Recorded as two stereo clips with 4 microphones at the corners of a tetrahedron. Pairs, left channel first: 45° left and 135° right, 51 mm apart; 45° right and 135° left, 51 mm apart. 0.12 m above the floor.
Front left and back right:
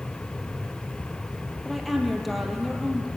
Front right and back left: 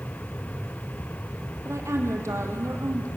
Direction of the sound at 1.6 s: 135° left.